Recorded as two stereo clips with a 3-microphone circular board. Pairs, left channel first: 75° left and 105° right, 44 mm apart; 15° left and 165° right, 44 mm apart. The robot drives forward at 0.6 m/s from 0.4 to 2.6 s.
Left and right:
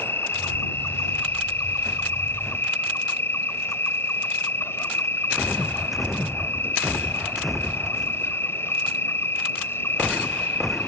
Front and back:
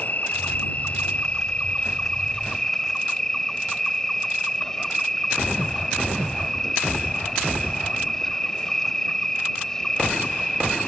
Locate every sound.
0.0 s an insect: 60° left; by 10.9 s 90° left